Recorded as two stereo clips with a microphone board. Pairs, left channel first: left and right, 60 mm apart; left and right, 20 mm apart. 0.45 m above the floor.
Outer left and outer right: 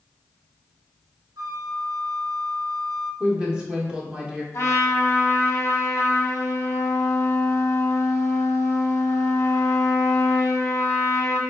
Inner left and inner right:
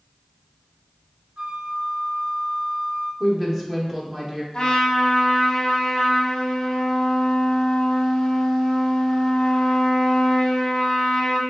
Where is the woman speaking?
15° right (ahead or behind), 1.0 m.